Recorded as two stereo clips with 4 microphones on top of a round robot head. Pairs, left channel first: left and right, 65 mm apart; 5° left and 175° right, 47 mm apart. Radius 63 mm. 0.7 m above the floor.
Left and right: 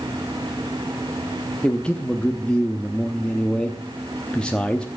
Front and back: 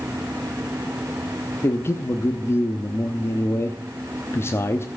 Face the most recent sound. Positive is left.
turn(degrees=15)